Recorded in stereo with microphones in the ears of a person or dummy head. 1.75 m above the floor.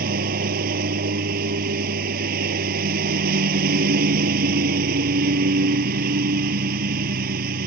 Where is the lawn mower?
45° right (ahead or behind).